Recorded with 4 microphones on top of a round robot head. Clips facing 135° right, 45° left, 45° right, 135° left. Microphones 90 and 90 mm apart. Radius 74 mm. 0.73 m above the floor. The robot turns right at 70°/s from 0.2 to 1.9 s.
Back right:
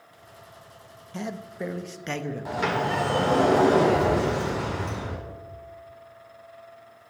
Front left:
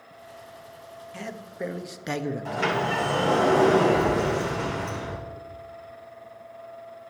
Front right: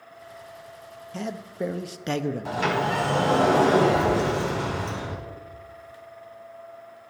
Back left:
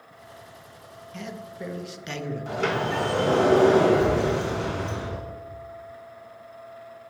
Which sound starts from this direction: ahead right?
A sliding door, at 2.5 s.